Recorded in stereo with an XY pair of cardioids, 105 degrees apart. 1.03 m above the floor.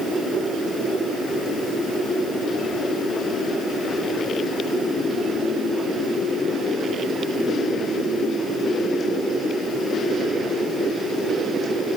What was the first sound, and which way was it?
Only background noise.